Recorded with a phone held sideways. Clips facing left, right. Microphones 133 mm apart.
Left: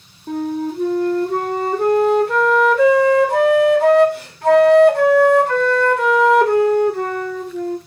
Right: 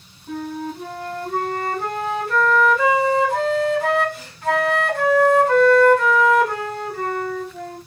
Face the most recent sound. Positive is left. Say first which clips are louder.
# left 6 dB
turn(degrees=65)  # may be behind; listen again after turning